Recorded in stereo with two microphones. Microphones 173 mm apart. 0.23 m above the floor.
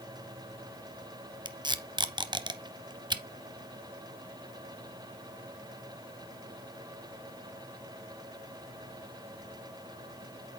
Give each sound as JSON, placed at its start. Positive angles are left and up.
{"t": 1.4, "sound": "tape being pulled", "side_deg": -25, "distance_m": 0.5}